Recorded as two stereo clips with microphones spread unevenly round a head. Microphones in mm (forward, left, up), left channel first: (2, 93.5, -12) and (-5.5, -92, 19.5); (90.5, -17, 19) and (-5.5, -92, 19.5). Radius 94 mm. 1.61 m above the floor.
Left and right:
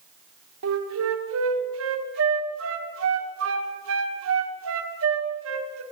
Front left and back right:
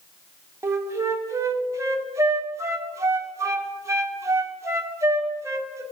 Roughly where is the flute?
Right.